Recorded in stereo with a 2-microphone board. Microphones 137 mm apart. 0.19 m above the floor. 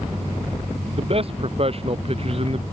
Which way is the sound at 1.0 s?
45° right (ahead or behind).